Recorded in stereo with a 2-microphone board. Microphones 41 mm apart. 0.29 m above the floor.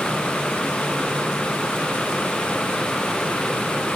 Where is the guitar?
I don't hear a guitar.